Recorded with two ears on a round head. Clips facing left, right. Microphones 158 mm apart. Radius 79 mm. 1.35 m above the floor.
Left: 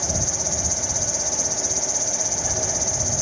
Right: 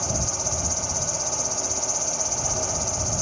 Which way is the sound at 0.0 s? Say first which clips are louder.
Left 1 dB; 10° left (ahead or behind).